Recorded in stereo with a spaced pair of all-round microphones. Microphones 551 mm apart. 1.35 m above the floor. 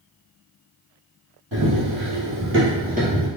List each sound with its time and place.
1.5 s running footsteps: 35° right (ahead or behind), 1.8 m; by 3.3 s 10° right (ahead or behind), 1.3 m